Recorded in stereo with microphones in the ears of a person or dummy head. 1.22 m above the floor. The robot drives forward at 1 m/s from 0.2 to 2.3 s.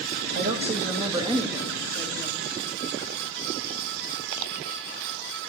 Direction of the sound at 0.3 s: 45° right (ahead or behind).